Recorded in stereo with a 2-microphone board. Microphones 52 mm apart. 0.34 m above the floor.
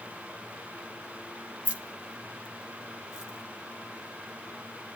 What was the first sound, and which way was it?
Keys jangling, 25° right (ahead or behind).